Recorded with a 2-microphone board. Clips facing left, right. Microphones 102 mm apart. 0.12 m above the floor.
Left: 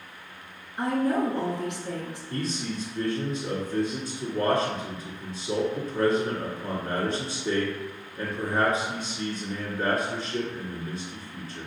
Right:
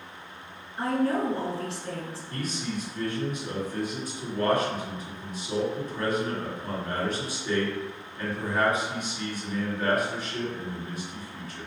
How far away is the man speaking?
About 2.0 m.